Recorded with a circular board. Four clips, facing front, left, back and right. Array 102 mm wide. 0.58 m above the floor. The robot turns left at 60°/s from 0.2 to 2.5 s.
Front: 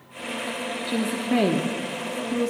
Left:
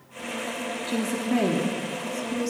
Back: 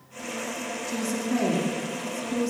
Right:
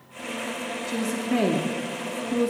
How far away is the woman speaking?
About 0.9 m.